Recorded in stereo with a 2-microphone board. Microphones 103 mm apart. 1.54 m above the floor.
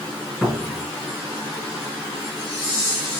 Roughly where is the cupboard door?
Centre.